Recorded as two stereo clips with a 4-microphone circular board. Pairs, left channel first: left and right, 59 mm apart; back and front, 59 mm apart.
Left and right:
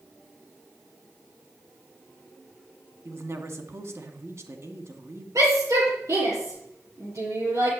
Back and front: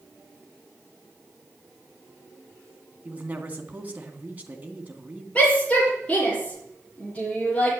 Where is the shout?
115° right, 8 m.